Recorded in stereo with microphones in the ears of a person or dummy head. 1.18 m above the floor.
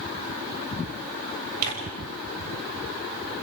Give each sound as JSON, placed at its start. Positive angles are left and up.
{"t": 1.6, "sound": "tearing paper", "side_deg": -50, "distance_m": 7.0}